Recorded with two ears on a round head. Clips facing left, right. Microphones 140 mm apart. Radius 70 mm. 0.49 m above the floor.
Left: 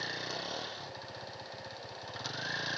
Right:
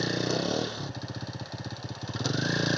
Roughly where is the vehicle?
Right.